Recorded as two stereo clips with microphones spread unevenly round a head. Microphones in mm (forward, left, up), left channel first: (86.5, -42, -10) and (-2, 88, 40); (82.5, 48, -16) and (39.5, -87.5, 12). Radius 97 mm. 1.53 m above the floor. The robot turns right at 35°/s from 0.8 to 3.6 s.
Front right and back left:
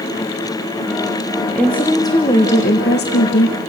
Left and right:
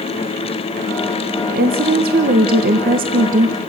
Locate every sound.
1.5 s a woman speaking: 150° right, 1.3 m; by 3.6 s 75° right, 1.3 m